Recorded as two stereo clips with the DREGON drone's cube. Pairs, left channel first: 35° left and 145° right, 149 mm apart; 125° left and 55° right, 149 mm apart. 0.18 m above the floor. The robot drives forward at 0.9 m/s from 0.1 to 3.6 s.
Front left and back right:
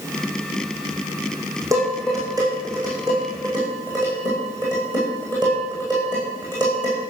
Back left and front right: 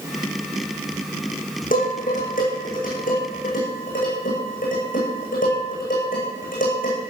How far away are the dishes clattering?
About 7.5 m.